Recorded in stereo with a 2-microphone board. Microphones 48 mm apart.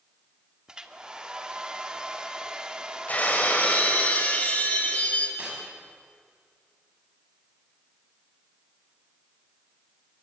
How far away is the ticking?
No ticking in this recording.